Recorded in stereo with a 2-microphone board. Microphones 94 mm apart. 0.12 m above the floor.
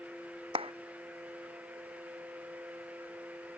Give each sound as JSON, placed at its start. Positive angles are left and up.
{"t": 0.6, "sound": "a clap", "side_deg": -75}